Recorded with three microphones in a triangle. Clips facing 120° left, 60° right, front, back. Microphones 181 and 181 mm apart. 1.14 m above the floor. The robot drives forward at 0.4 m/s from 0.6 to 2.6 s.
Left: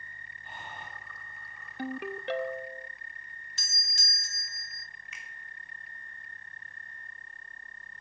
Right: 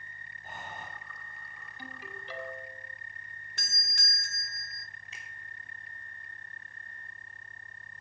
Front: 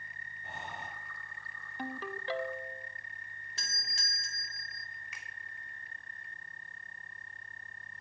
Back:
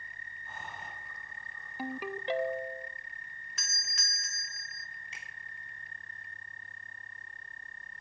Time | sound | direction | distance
0.4 | breathing | 15° right | 6.5 m
1.8 | a ringtone | 95° left | 0.8 m
3.6 | a doorbell | 55° right | 1.3 m
5.1 | a finger snap | 120° right | 3 m